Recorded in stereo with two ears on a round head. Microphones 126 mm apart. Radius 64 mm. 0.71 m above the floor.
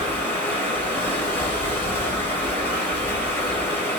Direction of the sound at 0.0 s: 15° left (ahead or behind).